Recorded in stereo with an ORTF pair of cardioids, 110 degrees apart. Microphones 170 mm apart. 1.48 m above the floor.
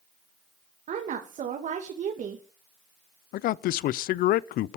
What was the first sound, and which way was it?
A woman speaking, 50° right.